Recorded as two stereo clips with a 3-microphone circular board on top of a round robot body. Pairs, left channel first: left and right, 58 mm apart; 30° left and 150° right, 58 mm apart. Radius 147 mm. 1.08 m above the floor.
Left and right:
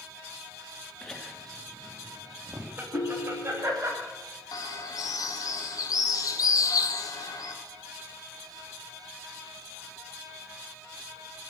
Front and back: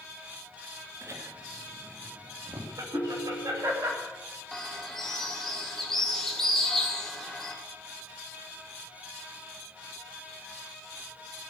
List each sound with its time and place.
1.0 s laughter: 170° left, 3 m; by 3.9 s 130° right, 4.5 m
2.9 s a ringtone: 90° left, 1.1 m
4.5 s a bird: 115° left, 1.6 m